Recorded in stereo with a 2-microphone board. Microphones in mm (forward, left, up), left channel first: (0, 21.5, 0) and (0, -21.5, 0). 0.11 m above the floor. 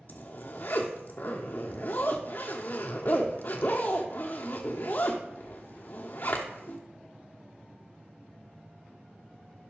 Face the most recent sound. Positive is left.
turn(degrees=45)  # may be behind; listen again after turning